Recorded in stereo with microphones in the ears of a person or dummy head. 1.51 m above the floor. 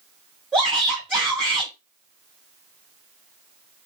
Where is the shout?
10° right (ahead or behind), 2 m.